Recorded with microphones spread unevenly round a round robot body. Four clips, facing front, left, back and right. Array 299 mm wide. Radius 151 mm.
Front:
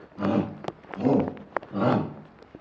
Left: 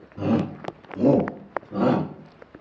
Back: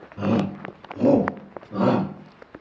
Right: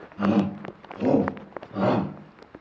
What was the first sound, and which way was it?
A shout, 130° left.